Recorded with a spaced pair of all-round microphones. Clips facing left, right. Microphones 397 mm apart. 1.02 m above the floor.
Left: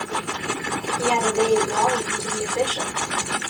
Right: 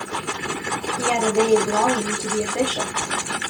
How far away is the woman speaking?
About 1.4 m.